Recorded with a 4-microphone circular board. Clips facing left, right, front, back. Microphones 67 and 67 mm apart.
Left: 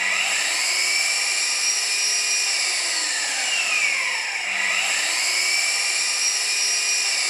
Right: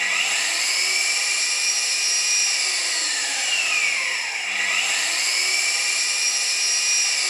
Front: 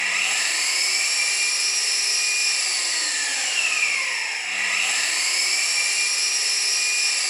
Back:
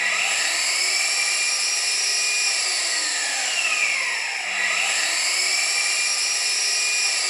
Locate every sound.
0.0 s an engine running: 145° left, 1.2 m